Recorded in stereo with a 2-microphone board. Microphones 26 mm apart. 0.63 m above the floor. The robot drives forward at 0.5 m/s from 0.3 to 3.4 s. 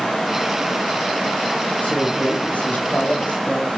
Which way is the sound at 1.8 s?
75° left (ahead or behind).